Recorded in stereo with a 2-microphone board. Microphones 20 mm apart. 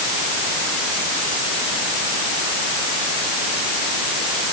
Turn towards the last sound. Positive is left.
No sound to turn to.